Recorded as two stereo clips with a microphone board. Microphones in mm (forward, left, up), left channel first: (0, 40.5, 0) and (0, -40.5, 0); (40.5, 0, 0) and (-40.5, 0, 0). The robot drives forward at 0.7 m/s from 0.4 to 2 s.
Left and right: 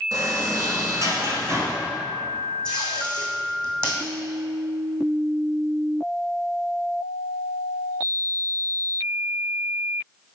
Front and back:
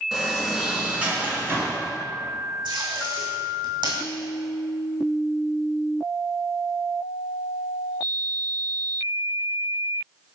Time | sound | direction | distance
0.1 | a sliding door | 95° right | 1.6 m
2.6 | tape being pulled | 170° left | 2 m